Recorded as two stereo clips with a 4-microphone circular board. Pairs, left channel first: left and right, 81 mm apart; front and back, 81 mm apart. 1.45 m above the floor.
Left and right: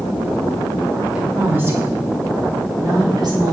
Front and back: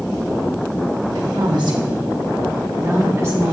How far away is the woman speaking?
About 1.5 m.